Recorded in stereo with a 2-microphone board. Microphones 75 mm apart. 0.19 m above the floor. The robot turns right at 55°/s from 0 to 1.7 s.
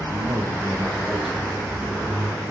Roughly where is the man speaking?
Right.